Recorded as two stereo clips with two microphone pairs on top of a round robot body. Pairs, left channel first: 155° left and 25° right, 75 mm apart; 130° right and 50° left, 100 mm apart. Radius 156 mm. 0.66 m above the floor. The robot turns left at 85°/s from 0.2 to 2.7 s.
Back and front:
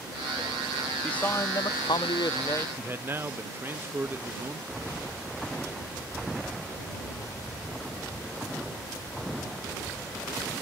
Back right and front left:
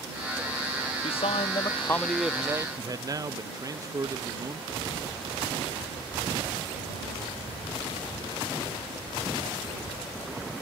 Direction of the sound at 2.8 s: 15° left.